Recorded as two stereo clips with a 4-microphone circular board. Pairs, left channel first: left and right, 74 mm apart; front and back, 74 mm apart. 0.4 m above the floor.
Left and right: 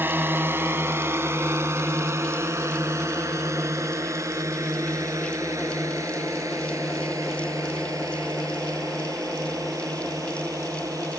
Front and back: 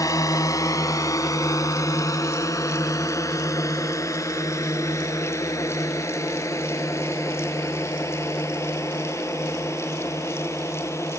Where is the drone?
30° right; by 11.2 s 50° right.